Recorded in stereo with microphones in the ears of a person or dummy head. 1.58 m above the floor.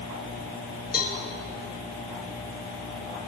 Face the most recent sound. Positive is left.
turn(degrees=50)  # may be behind; listen again after turning